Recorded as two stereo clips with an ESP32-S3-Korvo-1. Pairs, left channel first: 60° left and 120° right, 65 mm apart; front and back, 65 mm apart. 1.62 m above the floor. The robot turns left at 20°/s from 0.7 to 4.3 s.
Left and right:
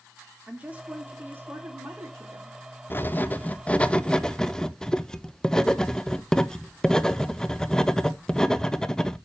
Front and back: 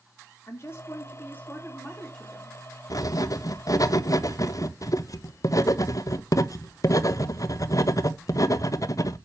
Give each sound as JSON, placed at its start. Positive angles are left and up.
{"t": 0.5, "sound": "a woman speaking", "azimuth_deg": -50, "distance_m": 3.5}
{"t": 2.9, "sound": "writing", "azimuth_deg": 10, "distance_m": 0.9}